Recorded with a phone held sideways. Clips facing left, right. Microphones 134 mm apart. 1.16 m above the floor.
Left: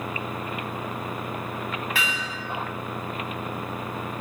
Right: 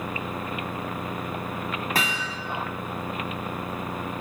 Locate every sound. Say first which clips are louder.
1.9 s hammering: right 2 dB; 40° right (ahead or behind), 9 m